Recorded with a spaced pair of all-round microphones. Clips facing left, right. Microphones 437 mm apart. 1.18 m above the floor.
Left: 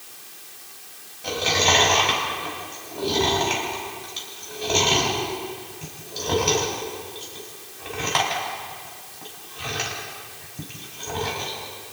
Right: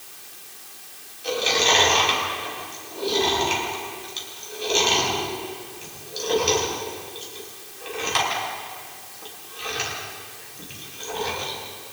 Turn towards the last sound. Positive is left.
turn(degrees=75)  # may be behind; listen again after turning